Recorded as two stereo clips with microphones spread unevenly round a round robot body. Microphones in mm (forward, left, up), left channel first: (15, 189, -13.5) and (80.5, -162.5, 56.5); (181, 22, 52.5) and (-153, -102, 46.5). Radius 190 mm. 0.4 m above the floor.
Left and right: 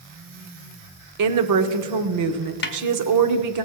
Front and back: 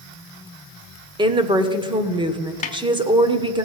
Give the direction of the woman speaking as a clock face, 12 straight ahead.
3 o'clock.